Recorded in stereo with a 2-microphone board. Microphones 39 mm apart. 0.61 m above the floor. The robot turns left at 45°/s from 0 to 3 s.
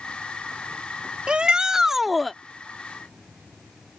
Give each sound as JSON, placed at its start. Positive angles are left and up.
{"t": 1.3, "sound": "a shout", "azimuth_deg": -140}